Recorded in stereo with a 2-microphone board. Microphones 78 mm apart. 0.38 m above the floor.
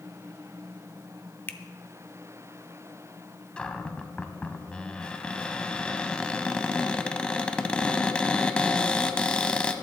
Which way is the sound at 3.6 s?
10° left (ahead or behind).